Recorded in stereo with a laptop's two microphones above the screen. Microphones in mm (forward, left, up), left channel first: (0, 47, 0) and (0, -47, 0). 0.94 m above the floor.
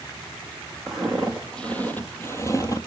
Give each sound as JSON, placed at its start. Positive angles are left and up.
{"t": 0.9, "sound": "footsteps", "side_deg": 0, "distance_m": 1.8}